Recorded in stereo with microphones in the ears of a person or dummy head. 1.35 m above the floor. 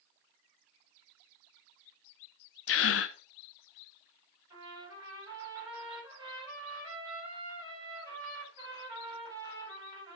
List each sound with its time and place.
2.7 s a gasp: 70° left (ahead or behind), 0.9 m
4.5 s a trumpet: 20° right (ahead or behind), 6 m